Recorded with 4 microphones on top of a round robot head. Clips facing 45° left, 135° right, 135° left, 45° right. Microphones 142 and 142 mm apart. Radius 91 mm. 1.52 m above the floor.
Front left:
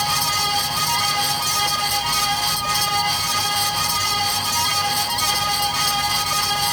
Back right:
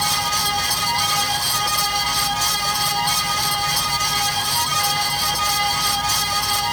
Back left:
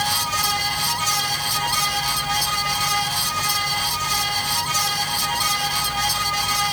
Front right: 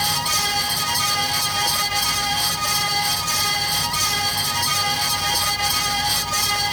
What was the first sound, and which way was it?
Only background noise.